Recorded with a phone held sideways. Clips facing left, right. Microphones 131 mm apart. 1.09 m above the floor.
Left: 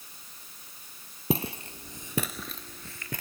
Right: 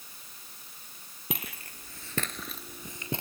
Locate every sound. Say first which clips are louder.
1.3 s footsteps: left 10 dB; 30° left (ahead or behind); by 3.2 s 25° right (ahead or behind)